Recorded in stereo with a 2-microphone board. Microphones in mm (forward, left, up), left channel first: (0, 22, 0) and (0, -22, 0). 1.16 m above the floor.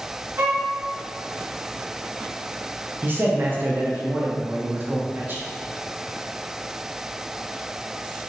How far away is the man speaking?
About 0.5 m.